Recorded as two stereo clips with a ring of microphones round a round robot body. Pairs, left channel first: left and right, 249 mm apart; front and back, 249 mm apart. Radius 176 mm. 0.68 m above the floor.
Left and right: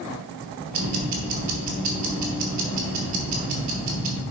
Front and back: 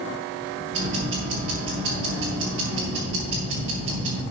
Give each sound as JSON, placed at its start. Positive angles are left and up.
{"t": 0.7, "sound": "ticking", "azimuth_deg": -125, "distance_m": 1.1}